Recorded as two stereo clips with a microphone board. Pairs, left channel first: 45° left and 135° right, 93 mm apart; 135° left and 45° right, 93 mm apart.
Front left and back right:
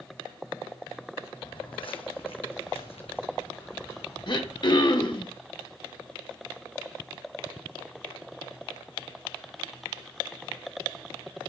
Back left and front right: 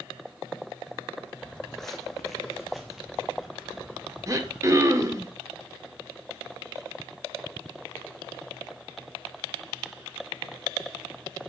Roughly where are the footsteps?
Ahead left.